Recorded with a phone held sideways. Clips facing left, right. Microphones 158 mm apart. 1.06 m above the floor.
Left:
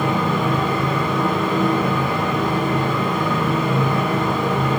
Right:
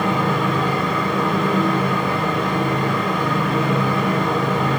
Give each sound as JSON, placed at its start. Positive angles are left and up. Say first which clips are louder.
{"t": 0.0, "sound": "a fan", "louder": "even", "side_deg": 5, "distance_m": 7.5}